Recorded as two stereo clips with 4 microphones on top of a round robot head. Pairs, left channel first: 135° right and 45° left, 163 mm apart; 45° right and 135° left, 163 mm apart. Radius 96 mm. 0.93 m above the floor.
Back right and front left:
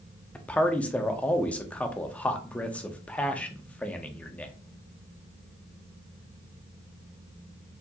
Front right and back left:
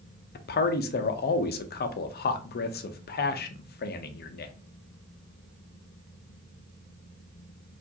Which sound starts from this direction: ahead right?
A man speaking, at 0.3 s.